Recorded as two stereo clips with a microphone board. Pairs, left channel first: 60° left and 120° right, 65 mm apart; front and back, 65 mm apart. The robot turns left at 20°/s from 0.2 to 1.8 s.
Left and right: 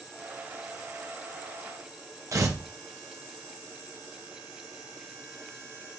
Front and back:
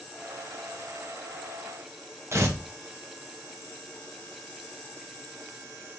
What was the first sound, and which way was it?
Tearing paper, 140° right.